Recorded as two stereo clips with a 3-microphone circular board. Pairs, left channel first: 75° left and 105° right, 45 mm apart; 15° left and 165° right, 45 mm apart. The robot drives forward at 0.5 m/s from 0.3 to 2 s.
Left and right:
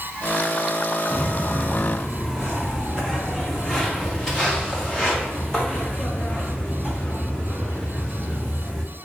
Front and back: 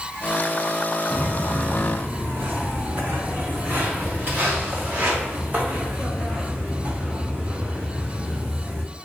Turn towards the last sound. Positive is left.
turn(degrees=140)